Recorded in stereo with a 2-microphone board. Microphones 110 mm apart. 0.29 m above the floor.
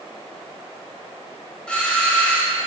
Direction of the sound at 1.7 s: 10° left (ahead or behind).